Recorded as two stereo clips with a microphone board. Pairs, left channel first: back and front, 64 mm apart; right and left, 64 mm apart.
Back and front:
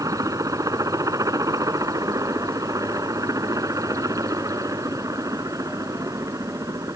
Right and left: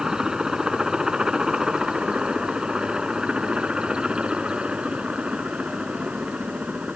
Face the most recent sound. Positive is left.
turn(degrees=20)